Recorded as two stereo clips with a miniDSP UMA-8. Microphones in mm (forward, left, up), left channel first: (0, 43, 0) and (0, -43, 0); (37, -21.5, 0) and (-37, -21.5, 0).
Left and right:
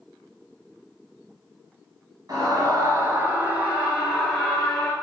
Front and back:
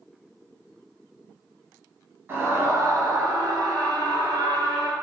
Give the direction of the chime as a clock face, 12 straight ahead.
I don't hear a chime.